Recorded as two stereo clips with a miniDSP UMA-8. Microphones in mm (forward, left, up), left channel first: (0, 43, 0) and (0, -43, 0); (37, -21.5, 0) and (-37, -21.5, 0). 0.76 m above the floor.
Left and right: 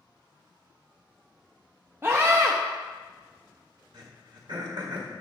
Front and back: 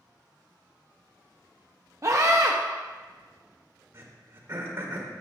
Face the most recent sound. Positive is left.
turn(degrees=-120)